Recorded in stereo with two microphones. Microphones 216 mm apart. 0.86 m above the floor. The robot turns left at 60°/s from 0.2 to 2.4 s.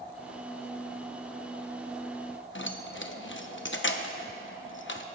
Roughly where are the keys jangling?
Left.